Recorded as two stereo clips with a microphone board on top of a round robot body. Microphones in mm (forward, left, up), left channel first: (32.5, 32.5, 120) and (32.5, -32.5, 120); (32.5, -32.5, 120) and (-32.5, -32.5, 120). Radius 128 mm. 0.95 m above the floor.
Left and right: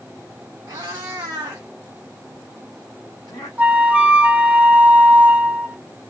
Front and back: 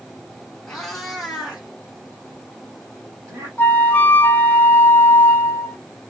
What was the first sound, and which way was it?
A cat meowing, 80° right.